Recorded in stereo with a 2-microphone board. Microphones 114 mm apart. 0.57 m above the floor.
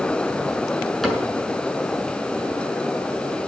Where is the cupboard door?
Centre (ahead or behind), 6 m.